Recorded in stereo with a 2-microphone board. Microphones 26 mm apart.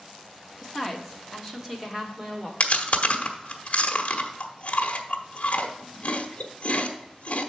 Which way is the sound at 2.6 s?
55° left (ahead or behind).